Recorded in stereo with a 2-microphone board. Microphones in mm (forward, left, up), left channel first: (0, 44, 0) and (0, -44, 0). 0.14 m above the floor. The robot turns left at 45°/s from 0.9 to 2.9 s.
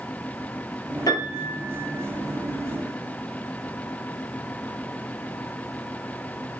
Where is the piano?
130° left, 3 m; by 2.0 s 85° left, 3 m.